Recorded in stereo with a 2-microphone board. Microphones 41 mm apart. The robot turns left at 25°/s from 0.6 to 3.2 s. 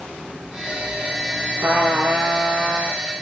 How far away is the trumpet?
About 5 m.